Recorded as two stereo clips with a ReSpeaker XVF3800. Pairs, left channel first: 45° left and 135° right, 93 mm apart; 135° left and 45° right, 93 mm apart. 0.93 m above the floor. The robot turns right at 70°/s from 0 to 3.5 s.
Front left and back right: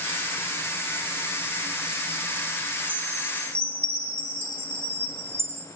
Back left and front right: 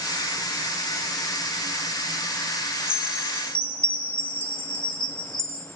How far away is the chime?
About 2 m.